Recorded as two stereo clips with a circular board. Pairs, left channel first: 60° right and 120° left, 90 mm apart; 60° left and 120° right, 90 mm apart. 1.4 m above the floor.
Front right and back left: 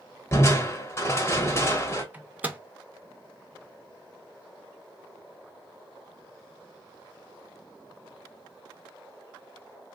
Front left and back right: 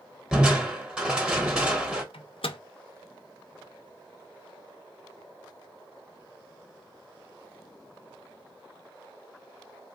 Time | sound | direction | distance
0.3 | crushing | 50° right | 1.0 m
2.1 | a microwave | 50° left | 0.5 m